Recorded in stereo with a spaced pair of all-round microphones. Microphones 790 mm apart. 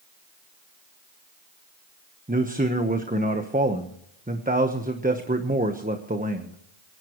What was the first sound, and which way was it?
A man speaking, 10° right (ahead or behind).